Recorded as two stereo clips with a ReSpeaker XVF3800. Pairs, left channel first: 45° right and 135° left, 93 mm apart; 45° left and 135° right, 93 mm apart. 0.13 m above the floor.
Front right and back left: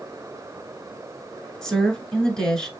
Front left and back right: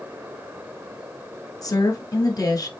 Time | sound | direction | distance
1.6 | a woman speaking | 35° left | 1.5 m